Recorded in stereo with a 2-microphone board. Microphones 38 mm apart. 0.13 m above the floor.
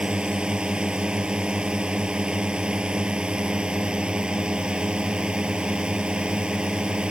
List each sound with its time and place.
0.0 s a drone: 25° right (ahead or behind)